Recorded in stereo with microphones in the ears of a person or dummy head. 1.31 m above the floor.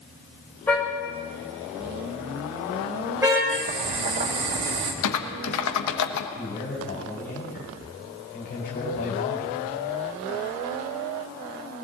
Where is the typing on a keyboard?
80° left, 1.2 m.